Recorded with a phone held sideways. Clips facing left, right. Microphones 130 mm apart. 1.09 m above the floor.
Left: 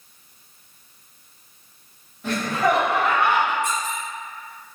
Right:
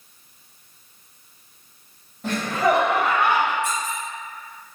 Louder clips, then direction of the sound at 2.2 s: Right 1 dB; 40° right (ahead or behind).